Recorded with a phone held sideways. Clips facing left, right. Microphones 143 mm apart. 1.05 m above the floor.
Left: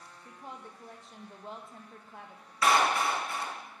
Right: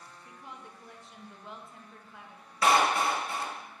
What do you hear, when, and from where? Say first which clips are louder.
0.2 s a woman speaking: left 3 dB; 35° left (ahead or behind), 0.9 m
2.6 s a clap: right 1 dB; 25° right (ahead or behind), 1.5 m